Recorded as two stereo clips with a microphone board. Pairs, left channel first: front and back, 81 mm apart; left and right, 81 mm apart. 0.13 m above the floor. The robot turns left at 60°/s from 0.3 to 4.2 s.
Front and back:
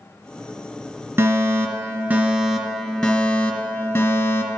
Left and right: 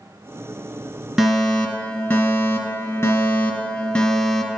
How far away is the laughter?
No laughter in this recording.